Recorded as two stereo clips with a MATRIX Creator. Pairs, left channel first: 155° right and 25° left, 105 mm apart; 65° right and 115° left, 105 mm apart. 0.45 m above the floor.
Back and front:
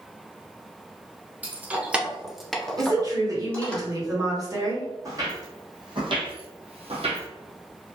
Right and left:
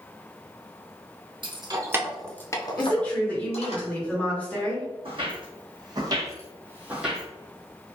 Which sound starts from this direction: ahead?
A woman speaking, at 2.8 s.